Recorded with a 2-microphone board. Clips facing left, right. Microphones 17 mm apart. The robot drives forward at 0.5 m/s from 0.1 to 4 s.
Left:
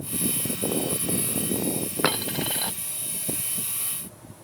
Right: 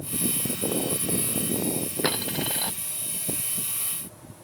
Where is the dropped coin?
55° left (ahead or behind).